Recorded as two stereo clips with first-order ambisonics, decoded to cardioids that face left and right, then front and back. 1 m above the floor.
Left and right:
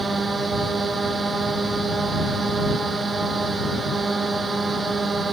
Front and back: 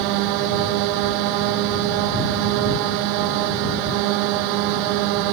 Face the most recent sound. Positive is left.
turn(degrees=-165)